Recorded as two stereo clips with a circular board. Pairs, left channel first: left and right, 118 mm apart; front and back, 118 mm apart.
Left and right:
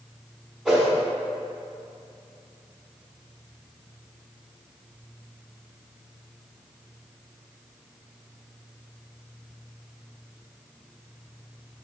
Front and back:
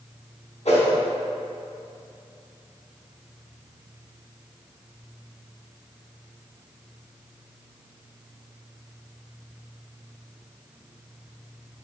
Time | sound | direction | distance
0.7 | a whoosh | straight ahead | 1.1 m